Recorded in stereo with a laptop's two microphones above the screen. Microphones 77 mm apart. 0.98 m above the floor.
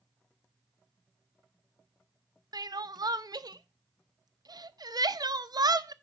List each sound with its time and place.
2.5 s crying: 60° right (ahead or behind), 0.6 m